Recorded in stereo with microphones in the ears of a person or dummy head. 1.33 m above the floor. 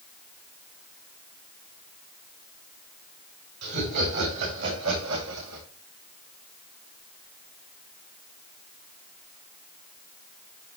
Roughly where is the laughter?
Right.